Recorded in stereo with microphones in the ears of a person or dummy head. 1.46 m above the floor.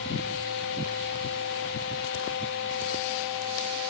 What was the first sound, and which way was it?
Only background noise.